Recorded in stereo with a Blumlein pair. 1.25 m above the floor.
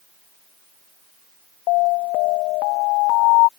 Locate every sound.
1.7 s an alarm: 40° left